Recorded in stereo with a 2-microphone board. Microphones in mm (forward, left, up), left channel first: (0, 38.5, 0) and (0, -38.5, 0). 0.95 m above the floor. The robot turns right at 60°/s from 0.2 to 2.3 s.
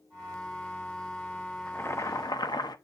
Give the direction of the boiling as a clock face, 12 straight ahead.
11 o'clock.